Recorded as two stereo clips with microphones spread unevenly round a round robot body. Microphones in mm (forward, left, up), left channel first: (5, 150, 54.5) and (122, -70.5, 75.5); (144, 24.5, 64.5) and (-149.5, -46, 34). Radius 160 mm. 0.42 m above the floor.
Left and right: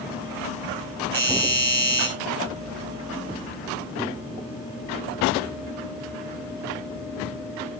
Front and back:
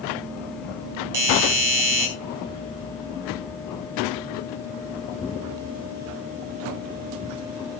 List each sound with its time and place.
1.1 s a doorbell: 160° right, 4.5 m